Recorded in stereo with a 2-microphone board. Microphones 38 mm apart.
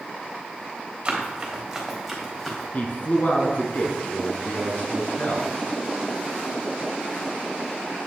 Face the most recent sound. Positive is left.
turn(degrees=45)  # may be behind; listen again after turning